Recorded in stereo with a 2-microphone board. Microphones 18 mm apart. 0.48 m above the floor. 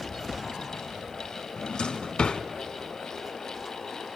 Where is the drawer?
55° left (ahead or behind), 0.9 m.